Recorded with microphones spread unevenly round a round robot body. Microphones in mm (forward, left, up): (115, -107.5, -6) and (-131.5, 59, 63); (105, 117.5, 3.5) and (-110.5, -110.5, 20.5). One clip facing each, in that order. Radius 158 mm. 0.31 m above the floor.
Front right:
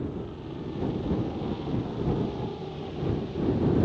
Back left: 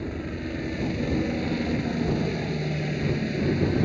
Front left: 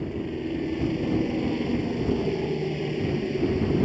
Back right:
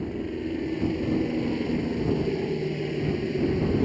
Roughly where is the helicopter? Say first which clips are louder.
Back left 3 dB, even; behind left.